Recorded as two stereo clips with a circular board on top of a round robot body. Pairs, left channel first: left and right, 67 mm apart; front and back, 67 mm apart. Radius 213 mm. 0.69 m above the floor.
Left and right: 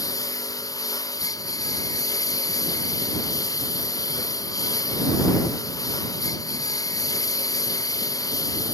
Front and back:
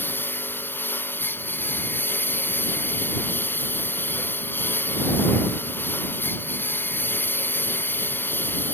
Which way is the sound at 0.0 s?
60° left.